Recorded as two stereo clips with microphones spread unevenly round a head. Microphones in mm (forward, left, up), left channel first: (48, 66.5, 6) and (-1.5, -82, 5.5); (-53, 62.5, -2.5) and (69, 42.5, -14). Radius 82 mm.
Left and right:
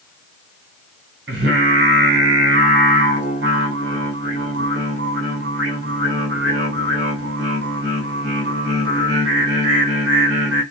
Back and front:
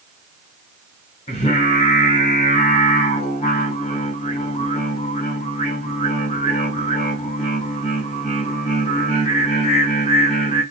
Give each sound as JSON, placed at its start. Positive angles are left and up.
{"t": 1.3, "sound": "singing", "azimuth_deg": -135, "distance_m": 3.0}